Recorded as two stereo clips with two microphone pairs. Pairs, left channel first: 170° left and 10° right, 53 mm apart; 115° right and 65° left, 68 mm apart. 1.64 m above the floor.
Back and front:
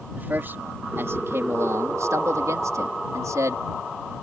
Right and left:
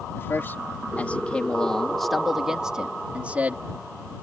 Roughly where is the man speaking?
Ahead right.